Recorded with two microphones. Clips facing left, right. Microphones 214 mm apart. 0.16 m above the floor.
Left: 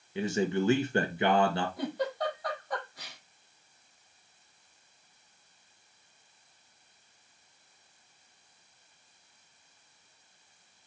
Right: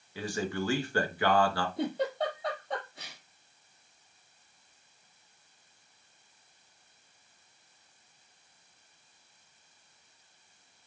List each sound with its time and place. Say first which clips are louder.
0.1 s a man speaking: left 5 dB; 20° left (ahead or behind), 1.9 m
1.8 s a giggle: right 2 dB; 25° right (ahead or behind), 4 m